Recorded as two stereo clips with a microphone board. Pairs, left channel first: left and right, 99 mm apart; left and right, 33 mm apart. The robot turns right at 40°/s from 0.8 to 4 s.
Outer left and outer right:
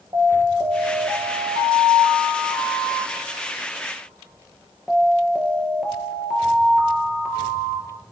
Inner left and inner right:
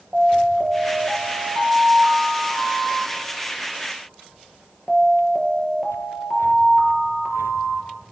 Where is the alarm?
140° right, 4.5 m; by 8.0 s 10° right, 4.5 m.